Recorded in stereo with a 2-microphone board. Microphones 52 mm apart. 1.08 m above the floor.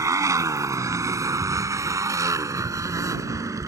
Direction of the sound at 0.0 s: 80° right.